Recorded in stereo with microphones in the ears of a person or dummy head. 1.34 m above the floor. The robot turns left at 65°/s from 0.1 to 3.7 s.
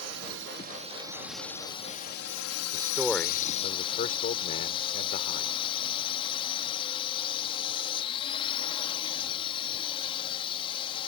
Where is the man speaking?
155° right; by 5.6 s 140° left.